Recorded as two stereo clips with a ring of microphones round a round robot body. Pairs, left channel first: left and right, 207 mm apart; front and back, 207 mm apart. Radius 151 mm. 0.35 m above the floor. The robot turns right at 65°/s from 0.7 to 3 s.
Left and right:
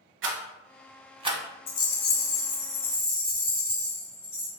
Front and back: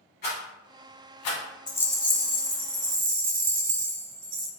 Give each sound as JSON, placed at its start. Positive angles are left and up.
{"t": 0.2, "sound": "a rattle", "azimuth_deg": -60, "distance_m": 0.7}
{"t": 1.7, "sound": "a rattle", "azimuth_deg": 70, "distance_m": 0.9}